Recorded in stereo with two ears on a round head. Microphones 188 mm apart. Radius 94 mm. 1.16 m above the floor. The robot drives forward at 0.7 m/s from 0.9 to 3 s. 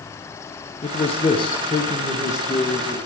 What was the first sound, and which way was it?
A man speaking, 30° left (ahead or behind).